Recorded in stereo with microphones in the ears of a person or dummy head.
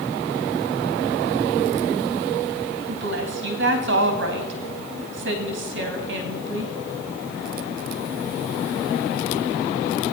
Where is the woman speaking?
65° right (ahead or behind), 2 m.